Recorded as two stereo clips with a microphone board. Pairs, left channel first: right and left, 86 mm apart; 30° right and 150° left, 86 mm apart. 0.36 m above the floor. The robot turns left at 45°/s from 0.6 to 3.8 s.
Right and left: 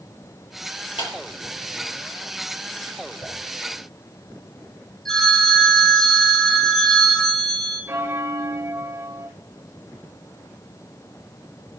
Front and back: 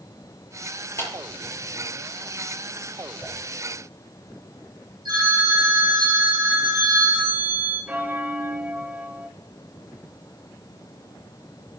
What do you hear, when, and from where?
1.0 s a clap: 85° right, 7.5 m; by 1.1 s 90° right, 7.5 m
3.2 s a whoosh: 115° right, 6.5 m; by 3.3 s 120° right, 6.5 m
5.0 s a phone ringing: 175° right, 8.5 m
7.9 s a bell: 110° left, 1.5 m